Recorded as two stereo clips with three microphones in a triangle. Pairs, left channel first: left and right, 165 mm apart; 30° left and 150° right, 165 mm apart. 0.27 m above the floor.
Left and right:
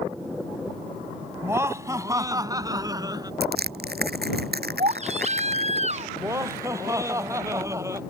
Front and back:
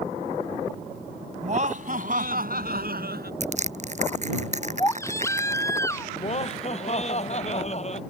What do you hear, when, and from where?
1.4 s laughter: 160° right; by 3.3 s 155° right
3.4 s crushing: 105° right
4.8 s a baby crying: 45° right
6.2 s laughter: 20° right